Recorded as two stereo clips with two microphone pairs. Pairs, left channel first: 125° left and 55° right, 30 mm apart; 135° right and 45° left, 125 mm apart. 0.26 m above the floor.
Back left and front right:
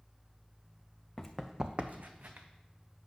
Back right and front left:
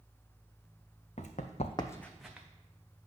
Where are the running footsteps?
155° right, 0.9 m; by 2.5 s 40° right, 1.2 m.